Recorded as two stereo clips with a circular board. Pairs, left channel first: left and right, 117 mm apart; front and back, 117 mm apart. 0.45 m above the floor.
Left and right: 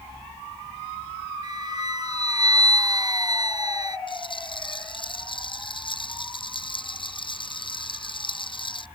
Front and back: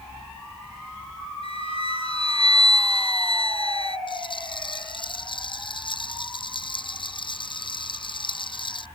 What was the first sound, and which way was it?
A flute, 35° right.